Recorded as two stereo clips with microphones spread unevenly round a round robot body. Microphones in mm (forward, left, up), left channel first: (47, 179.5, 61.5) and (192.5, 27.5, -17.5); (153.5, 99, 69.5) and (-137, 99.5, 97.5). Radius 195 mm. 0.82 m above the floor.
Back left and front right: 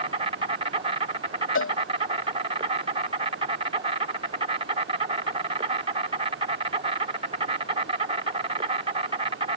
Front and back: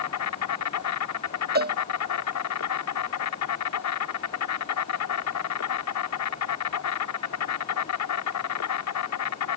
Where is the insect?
5° left.